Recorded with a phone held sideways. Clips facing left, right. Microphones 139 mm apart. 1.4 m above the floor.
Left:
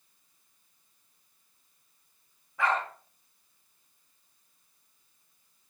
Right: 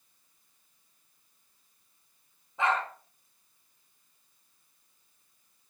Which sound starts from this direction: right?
A dog barking, at 2.6 s.